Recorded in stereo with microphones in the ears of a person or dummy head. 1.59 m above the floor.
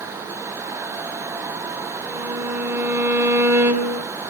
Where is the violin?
15° right (ahead or behind), 3 m.